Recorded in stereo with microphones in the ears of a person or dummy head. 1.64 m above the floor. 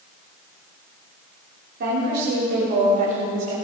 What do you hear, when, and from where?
1.8 s a woman speaking: 50° right (ahead or behind), 3.5 m; by 3.5 s 35° right (ahead or behind), 4.5 m